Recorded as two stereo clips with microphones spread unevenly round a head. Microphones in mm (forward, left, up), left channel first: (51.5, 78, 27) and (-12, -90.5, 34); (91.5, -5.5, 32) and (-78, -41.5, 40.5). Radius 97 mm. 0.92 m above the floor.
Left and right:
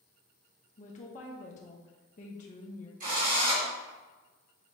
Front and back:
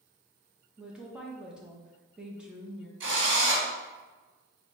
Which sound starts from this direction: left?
A woman speaking, at 0.8 s.